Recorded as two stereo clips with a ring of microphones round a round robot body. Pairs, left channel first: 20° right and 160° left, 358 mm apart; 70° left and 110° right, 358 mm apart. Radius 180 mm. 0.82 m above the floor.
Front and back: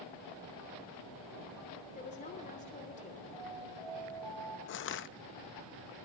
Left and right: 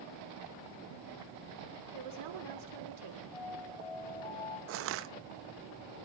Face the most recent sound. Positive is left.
turn(degrees=-70)